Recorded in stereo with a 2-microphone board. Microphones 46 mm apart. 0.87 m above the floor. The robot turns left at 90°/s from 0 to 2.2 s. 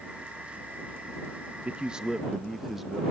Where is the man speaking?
120° right; by 3.0 s 170° right.